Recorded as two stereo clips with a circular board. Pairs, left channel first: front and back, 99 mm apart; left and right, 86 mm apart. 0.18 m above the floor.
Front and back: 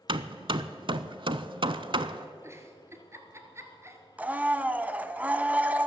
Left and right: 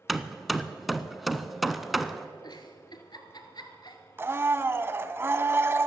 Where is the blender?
120° right, 0.6 m.